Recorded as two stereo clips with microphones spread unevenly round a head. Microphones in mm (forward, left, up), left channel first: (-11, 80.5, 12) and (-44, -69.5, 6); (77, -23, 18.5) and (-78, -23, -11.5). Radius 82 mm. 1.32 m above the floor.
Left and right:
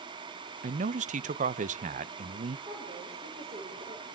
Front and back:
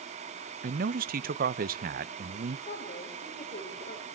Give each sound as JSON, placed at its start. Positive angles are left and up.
{"t": 0.6, "sound": "a man speaking", "azimuth_deg": -145, "distance_m": 0.7}
{"t": 2.7, "sound": "a woman speaking", "azimuth_deg": -45, "distance_m": 5.5}